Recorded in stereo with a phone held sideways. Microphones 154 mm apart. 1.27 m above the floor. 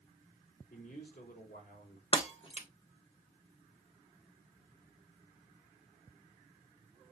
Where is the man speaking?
80° left, 4 m.